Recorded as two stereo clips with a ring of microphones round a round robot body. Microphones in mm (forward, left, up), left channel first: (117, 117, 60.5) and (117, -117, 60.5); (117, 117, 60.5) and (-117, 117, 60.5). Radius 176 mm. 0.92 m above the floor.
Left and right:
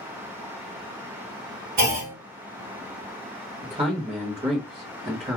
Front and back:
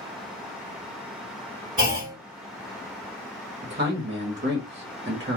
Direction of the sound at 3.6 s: 150° right.